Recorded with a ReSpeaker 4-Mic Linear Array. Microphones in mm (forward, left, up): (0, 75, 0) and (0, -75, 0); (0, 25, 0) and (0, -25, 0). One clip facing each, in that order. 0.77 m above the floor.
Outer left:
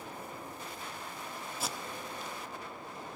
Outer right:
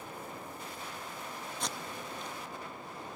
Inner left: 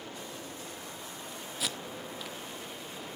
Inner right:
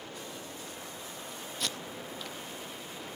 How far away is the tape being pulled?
About 0.9 m.